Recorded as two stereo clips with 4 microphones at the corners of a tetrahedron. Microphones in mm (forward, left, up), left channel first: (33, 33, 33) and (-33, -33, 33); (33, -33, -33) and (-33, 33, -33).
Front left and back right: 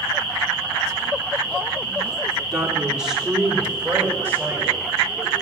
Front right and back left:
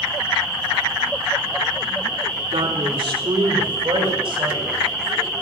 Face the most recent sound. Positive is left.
turn(degrees=155)